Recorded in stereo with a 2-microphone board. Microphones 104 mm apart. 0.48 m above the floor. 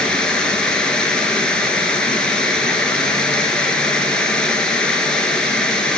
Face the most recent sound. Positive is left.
turn(degrees=10)  # may be behind; listen again after turning